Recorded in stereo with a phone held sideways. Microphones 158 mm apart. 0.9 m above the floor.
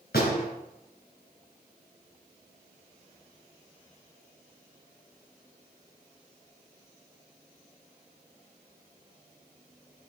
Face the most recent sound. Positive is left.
turn(degrees=85)